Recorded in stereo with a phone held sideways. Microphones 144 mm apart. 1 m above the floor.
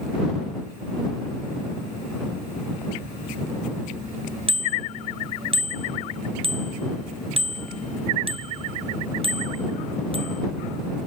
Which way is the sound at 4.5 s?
40° right (ahead or behind).